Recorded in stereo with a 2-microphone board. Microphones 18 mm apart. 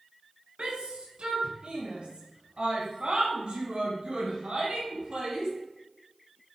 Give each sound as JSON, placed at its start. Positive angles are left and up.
{"t": 0.6, "sound": "a shout", "side_deg": -70, "distance_m": 3.5}